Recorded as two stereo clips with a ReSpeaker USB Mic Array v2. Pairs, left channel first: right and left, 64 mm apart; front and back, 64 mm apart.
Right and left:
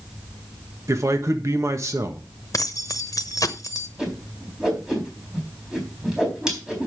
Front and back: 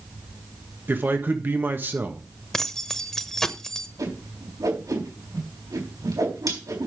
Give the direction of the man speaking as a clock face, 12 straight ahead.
8 o'clock.